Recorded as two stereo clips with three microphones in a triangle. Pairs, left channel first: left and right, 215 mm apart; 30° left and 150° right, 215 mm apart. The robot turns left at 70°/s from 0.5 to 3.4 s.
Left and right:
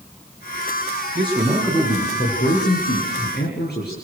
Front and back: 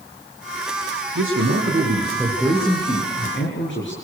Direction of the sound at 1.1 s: 150° right.